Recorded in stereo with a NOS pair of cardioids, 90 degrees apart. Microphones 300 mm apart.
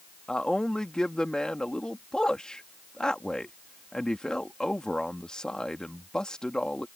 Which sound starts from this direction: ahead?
A man speaking, at 0.3 s.